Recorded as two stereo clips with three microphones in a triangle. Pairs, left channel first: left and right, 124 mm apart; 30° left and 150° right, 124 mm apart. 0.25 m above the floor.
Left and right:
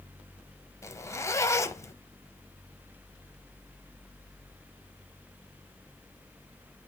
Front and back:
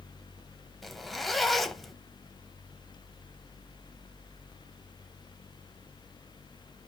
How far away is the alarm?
I don't hear an alarm.